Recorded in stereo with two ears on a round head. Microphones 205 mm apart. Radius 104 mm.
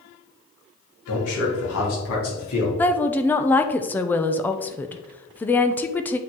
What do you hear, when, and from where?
1.1 s a man speaking: 65° left (ahead or behind), 3 m; by 2.7 s 70° left (ahead or behind), 3.5 m
2.8 s a woman speaking: 10° left (ahead or behind), 0.6 m